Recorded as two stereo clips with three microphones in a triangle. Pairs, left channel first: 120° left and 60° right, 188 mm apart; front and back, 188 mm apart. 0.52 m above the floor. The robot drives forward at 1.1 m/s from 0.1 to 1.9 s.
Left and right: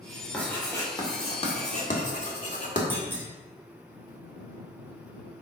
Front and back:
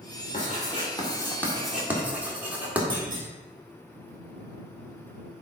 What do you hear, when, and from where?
0.3 s writing: 40° left, 2.5 m; by 2.8 s 100° left, 1.7 m
2.9 s a clunk: 140° right, 2.5 m